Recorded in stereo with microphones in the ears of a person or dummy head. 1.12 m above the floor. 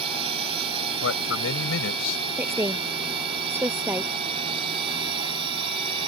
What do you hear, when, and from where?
0.0 s a drone: 30° right (ahead or behind); by 6.1 s 25° right (ahead or behind)
1.0 s a man speaking: 75° left (ahead or behind)
2.4 s a woman speaking: 10° right (ahead or behind)